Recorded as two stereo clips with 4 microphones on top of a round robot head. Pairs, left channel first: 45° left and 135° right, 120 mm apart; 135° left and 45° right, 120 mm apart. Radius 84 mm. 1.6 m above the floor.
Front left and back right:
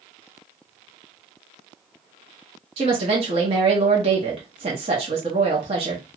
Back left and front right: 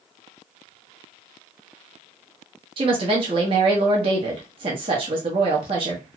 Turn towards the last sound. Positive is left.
turn(degrees=-90)